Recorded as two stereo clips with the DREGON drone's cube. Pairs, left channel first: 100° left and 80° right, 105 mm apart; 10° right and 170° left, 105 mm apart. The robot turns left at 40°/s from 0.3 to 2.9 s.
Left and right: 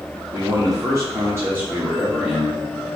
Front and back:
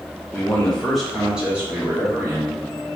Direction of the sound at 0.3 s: 75° right.